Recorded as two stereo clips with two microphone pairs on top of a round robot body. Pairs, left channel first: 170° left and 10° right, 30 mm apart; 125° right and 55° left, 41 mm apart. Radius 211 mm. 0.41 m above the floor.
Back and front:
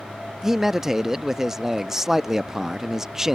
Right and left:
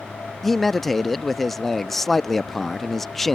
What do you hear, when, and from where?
0.4 s a man speaking: 50° right